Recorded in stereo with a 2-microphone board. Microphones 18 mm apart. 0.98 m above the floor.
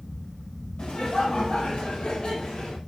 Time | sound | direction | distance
0.8 | laughter | 80° left | 4.5 m